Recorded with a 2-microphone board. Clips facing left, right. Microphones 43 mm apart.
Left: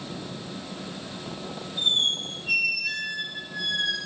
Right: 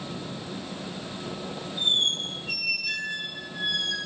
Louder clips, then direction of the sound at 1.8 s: Left 1 dB; 75° left (ahead or behind).